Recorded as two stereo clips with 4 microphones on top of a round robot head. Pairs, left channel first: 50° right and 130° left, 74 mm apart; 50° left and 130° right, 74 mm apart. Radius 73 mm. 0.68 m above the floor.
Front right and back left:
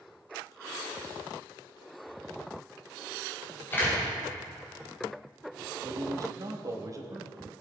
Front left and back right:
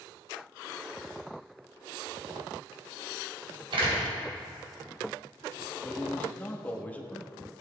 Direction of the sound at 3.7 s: 115° right.